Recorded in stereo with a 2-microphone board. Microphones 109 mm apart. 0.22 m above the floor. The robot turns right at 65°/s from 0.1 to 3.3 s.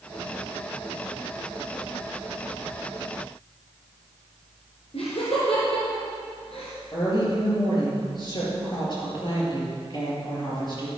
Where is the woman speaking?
45° left (ahead or behind), 5.5 m.